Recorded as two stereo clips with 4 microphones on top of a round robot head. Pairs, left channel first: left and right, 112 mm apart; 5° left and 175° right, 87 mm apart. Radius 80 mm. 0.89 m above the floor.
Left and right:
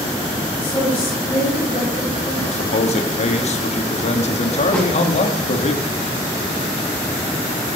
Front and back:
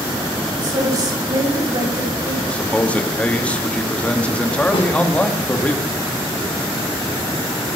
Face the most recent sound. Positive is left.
turn(degrees=5)